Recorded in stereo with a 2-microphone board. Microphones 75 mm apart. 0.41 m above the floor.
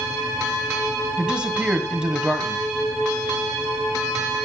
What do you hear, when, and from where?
1.2 s a man speaking: 15° right (ahead or behind), 2.5 m